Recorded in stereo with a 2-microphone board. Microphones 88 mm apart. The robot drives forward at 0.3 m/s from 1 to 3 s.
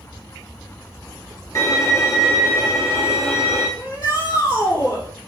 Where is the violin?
40° left (ahead or behind), 2.5 m; by 3.7 s 30° left (ahead or behind), 2.5 m.